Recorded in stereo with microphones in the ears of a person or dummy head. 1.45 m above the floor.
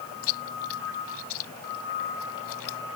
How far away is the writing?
I don't hear writing.